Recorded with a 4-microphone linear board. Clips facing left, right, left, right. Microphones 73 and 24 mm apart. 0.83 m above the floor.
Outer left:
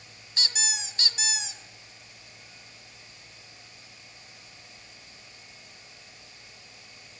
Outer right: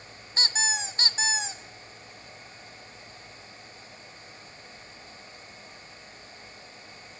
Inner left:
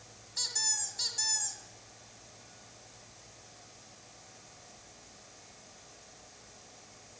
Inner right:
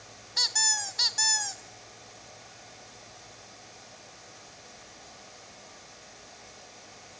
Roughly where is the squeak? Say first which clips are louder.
Outer right 5 dB, inner right 8 dB; right.